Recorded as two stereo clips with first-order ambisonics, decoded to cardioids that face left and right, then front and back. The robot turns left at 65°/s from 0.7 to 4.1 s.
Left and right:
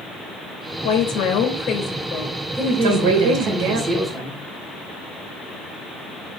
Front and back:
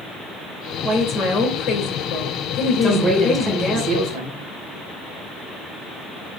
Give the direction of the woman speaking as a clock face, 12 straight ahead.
9 o'clock.